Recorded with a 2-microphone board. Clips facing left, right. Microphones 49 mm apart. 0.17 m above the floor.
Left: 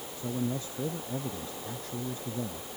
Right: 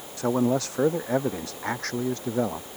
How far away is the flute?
I don't hear a flute.